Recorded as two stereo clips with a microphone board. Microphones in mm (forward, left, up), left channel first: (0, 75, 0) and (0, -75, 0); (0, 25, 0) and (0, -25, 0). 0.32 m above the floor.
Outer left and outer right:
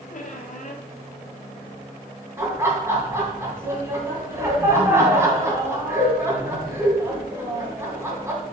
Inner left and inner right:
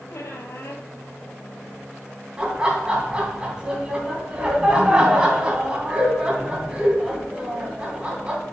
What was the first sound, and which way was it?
A squeak, 60° left (ahead or behind).